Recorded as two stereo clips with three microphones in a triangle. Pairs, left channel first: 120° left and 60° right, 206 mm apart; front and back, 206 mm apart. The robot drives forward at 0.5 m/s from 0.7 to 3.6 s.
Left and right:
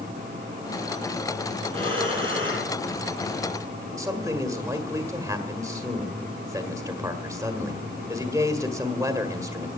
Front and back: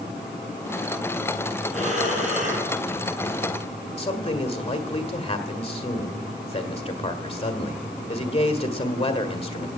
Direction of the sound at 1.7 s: 125° right.